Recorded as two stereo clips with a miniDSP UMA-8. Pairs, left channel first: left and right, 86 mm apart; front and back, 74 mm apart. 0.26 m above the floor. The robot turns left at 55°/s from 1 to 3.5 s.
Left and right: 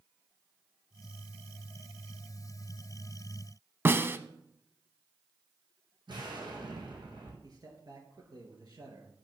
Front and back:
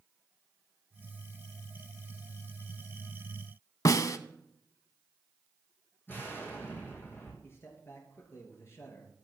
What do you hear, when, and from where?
3.9 s a snare drum: 30° right, 0.7 m
6.1 s an explosion: 60° right, 3.5 m
7.4 s a man speaking: 50° right, 4 m